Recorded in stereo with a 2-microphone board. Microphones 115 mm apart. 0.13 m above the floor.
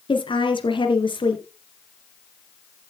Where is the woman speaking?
45° left (ahead or behind), 2 m.